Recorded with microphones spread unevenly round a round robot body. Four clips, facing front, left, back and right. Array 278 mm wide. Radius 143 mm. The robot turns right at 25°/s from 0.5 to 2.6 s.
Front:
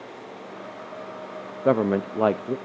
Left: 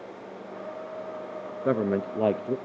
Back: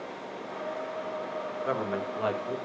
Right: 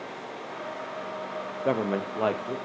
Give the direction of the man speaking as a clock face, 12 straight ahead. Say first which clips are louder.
Left 2 dB, front 12 dB; 12 o'clock.